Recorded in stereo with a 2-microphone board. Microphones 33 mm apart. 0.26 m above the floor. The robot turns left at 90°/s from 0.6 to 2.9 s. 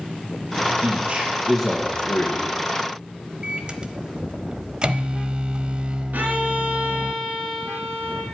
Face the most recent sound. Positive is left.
turn(degrees=-60)  # may be behind; listen again after turning